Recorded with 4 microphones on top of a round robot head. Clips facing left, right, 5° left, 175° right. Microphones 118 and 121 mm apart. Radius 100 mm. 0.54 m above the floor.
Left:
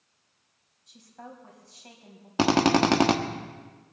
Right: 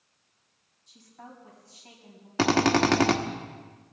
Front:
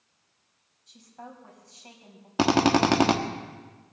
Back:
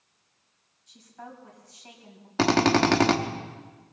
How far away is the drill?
About 1.3 m.